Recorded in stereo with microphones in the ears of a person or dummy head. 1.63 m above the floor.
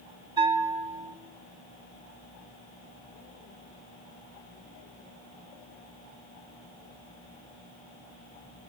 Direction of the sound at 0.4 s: 20° right (ahead or behind).